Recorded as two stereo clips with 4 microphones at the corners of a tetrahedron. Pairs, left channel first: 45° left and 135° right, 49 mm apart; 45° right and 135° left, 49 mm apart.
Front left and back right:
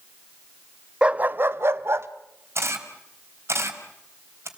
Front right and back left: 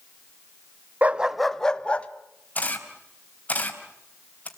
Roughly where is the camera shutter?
Right.